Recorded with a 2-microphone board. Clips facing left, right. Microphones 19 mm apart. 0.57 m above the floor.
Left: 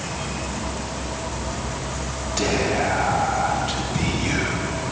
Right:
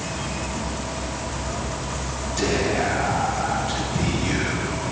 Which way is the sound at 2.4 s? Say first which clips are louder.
Left 1 dB; 30° left (ahead or behind).